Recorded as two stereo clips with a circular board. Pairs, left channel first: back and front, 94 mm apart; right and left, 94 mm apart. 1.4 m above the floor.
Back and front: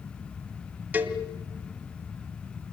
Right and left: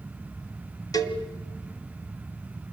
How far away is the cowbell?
About 1.7 m.